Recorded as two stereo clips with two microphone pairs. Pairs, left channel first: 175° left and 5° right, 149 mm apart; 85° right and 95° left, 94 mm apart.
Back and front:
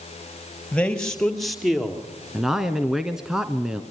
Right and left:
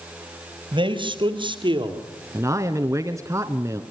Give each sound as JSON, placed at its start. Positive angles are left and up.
{"t": 0.7, "sound": "a man speaking", "azimuth_deg": 95, "distance_m": 3.0}
{"t": 2.3, "sound": "a man speaking", "azimuth_deg": 80, "distance_m": 1.2}